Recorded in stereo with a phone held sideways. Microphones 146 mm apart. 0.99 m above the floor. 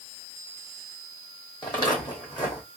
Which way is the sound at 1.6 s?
30° left (ahead or behind).